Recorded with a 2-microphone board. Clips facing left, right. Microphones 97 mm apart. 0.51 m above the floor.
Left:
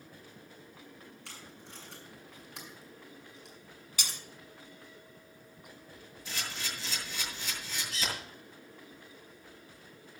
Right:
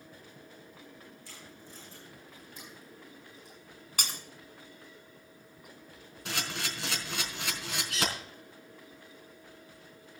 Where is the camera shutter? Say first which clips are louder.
Right 4 dB; 75° right (ahead or behind), 4.5 m.